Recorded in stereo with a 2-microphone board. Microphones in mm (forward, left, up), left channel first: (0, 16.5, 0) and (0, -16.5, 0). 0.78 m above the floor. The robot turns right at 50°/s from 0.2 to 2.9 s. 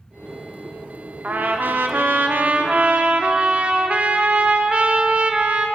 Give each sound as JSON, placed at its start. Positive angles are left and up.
{"t": 1.2, "sound": "a trumpet", "azimuth_deg": -130, "distance_m": 0.5}